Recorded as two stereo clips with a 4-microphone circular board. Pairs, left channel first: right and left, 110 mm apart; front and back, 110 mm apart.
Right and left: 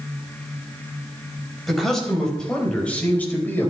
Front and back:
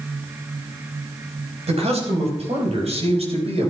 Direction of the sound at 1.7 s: Straight behind.